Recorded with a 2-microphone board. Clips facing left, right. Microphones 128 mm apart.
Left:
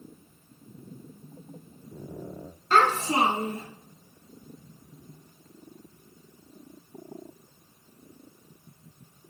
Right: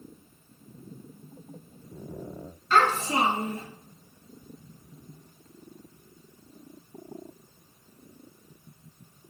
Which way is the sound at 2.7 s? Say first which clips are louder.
Left 1 dB; 35° left (ahead or behind).